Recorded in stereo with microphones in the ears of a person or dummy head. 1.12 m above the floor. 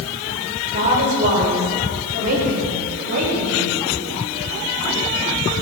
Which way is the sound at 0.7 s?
40° right (ahead or behind).